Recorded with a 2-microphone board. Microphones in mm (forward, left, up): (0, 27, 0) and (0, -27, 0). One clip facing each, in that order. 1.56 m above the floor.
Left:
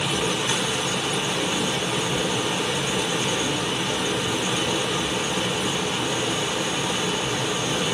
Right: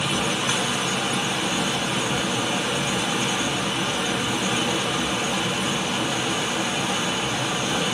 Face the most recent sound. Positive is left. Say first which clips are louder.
# even
turn(degrees=-50)  # may be behind; listen again after turning